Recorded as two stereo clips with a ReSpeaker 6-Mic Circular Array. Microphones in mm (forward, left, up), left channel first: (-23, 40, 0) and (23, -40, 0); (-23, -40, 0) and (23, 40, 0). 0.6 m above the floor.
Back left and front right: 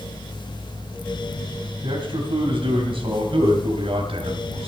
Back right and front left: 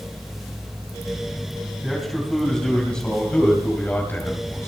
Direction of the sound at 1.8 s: 30° right.